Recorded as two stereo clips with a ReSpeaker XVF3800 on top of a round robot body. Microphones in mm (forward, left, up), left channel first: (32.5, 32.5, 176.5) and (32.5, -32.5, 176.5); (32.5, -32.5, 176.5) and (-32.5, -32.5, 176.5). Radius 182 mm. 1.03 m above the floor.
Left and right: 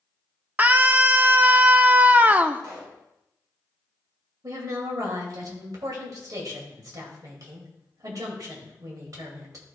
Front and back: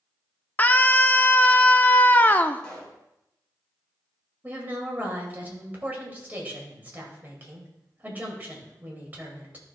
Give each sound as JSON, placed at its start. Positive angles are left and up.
{"t": 0.6, "sound": "a scream", "azimuth_deg": -45, "distance_m": 0.8}
{"t": 2.6, "sound": "a pop", "azimuth_deg": -80, "distance_m": 3.0}
{"t": 4.4, "sound": "a woman speaking", "azimuth_deg": -115, "distance_m": 2.5}